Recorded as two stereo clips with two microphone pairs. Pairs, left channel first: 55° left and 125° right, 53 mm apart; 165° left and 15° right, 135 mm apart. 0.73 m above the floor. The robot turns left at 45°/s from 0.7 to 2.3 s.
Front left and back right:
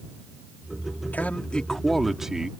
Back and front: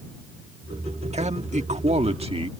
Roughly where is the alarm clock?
I don't hear an alarm clock.